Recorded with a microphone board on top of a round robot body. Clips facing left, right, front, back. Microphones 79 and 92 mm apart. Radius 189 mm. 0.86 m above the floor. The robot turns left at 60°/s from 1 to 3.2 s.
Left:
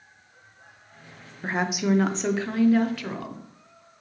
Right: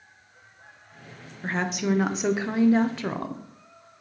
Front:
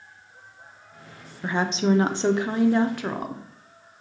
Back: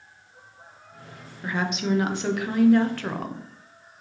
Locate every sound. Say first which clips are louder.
1.4 s a woman speaking: left 1 dB, front 4 dB; 30° left, 0.6 m; by 3.5 s 75° right, 0.6 m